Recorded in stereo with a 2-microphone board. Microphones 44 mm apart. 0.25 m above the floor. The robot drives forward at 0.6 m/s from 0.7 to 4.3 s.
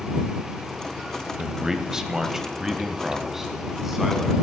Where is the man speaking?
15° right (ahead or behind), 0.9 m; by 4.3 s 5° right (ahead or behind), 1.8 m.